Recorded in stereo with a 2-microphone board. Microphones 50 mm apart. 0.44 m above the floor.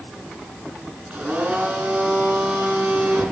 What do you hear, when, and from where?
1.1 s a blender: 20° right (ahead or behind), 6.5 m